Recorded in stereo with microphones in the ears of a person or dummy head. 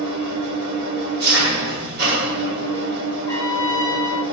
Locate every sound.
0.0 s an engine running: 50° right (ahead or behind), 1.3 m
3.3 s a trumpet: 10° left (ahead or behind), 1.0 m